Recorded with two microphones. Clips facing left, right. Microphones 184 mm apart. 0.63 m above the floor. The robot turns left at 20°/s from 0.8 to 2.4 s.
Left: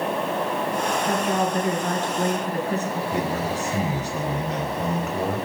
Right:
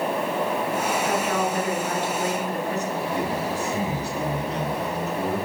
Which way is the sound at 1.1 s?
25° left (ahead or behind).